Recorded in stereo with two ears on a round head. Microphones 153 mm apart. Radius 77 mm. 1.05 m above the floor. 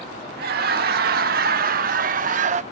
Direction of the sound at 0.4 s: 60° right (ahead or behind).